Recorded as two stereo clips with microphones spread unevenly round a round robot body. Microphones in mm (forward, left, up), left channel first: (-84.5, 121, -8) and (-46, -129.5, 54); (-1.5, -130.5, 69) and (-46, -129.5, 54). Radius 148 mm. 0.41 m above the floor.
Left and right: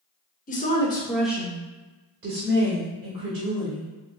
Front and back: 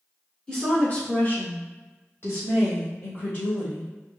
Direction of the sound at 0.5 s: 90° left.